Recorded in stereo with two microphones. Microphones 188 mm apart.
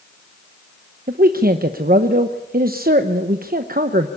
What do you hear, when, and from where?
1.1 s a man speaking: 50° right (ahead or behind), 0.9 m